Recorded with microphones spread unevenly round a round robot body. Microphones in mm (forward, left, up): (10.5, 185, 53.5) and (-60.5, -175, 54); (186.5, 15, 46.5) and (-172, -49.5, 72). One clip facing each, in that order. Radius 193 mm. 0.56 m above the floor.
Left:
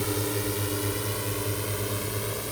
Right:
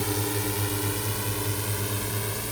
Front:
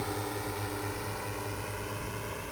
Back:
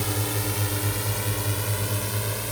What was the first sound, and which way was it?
A drone, straight behind.